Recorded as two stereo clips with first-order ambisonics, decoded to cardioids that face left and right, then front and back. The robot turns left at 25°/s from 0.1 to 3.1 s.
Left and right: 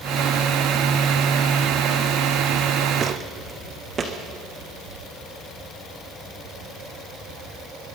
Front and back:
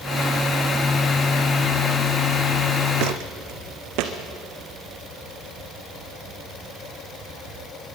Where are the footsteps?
160° right, 2 m.